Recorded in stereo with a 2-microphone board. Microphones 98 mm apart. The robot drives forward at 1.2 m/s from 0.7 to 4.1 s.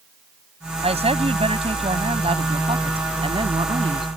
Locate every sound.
0.8 s a woman speaking: 80° right; by 4.1 s 60° right (ahead or behind)